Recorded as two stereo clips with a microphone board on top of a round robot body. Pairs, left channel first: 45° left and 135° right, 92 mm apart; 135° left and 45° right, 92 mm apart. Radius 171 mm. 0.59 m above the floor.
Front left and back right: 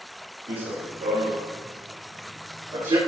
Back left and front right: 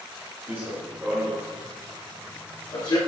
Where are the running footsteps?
105° right, 2.5 m; by 3.0 s 175° right, 2.5 m.